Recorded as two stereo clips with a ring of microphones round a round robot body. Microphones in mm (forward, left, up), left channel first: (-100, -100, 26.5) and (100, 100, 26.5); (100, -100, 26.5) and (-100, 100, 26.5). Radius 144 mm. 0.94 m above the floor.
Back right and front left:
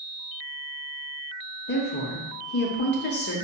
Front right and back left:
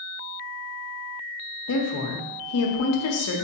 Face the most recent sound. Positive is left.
turn(degrees=-80)